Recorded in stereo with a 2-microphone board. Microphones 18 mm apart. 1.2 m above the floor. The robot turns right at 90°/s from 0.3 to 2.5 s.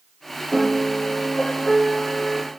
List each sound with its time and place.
0.5 s a piano: 5° left, 8 m; by 2.5 s 175° right, 8 m